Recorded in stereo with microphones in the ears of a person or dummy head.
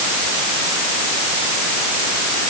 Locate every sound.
Only background noise.